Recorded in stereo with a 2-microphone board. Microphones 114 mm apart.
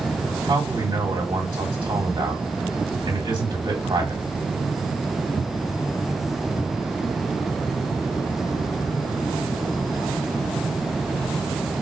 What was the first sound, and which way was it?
A man speaking, 40° right (ahead or behind).